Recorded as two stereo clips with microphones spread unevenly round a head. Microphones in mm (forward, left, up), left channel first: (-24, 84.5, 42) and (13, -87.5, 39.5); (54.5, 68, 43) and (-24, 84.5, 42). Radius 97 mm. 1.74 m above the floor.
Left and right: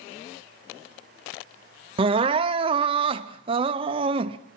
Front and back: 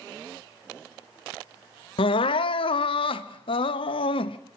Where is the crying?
15° right, 0.6 m.